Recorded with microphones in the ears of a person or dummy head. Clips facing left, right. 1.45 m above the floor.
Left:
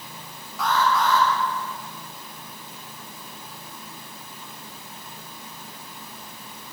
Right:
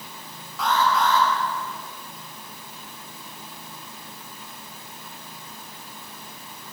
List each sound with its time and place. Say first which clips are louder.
0.6 s an alarm: even; 65° right (ahead or behind), 6.5 m